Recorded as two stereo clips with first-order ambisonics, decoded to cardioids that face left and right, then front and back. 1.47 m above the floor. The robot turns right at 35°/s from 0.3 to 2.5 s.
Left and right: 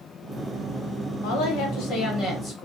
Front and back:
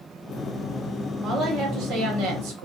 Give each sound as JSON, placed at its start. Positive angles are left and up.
{"t": 1.2, "sound": "a woman speaking", "azimuth_deg": 115, "distance_m": 1.0}